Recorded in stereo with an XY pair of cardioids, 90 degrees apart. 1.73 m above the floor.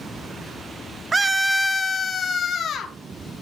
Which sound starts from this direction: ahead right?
A scream, at 1.1 s.